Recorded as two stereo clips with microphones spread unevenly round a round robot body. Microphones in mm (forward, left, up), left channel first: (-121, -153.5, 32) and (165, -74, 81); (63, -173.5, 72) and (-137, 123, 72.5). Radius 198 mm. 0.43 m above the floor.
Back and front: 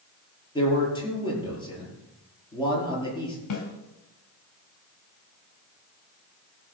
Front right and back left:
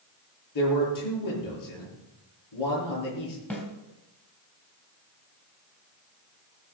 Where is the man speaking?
90° right, 8.5 m.